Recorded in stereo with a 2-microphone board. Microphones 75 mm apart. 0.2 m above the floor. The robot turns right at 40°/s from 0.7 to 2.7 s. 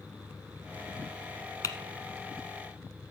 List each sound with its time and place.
1.6 s typing on a keyboard: 55° left (ahead or behind), 1.2 m; by 1.8 s 50° left (ahead or behind), 1.2 m